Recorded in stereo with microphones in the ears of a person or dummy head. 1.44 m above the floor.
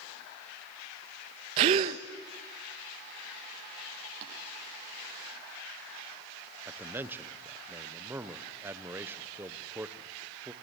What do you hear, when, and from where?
1.6 s a gasp: 30° right (ahead or behind), 0.7 m
4.2 s tapping: 65° right (ahead or behind), 7.5 m
6.7 s a man speaking: 15° right (ahead or behind), 1.1 m